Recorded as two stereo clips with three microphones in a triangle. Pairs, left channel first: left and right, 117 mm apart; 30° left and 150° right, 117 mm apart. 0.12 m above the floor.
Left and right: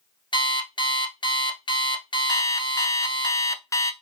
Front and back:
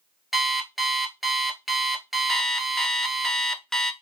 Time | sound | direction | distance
0.3 | an alarm clock | 120° left | 0.9 m
2.3 | an alarm clock | 110° left | 0.6 m